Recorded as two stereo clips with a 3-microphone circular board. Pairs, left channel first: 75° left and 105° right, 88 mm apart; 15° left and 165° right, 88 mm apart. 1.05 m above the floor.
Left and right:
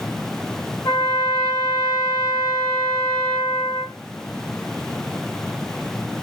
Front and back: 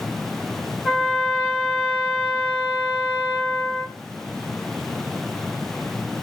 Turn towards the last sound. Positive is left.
turn(degrees=115)